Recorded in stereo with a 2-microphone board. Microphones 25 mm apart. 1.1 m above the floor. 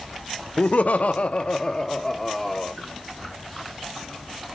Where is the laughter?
60° left (ahead or behind), 0.7 m; by 2.7 s 5° left (ahead or behind), 1.5 m.